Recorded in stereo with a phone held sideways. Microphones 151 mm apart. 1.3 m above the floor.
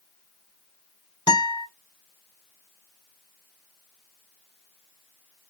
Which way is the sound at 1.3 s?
30° left (ahead or behind).